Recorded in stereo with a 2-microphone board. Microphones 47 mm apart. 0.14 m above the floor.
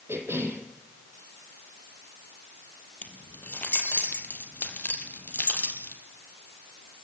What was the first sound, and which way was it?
A cough, 65° right (ahead or behind).